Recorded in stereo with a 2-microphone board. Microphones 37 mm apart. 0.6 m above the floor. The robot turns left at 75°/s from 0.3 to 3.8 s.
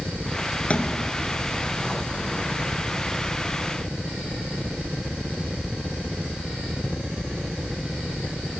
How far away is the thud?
About 2.5 m.